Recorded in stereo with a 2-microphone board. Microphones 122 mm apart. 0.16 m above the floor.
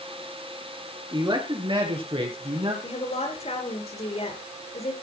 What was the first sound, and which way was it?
A man speaking, 35° right (ahead or behind).